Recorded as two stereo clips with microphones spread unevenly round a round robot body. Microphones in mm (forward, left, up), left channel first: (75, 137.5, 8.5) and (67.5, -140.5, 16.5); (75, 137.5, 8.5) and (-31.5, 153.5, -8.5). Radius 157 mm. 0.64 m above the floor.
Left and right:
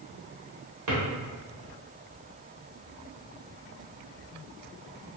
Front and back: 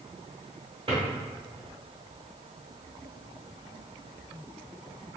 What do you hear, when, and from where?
0.9 s a drawer: 130° right, 0.8 m